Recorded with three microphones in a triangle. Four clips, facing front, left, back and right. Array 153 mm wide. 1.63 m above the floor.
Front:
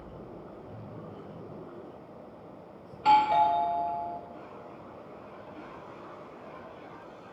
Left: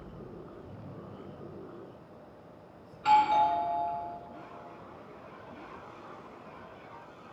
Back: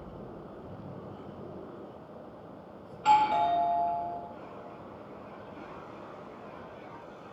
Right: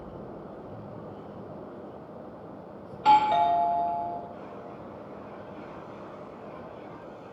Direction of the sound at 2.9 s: 65° right.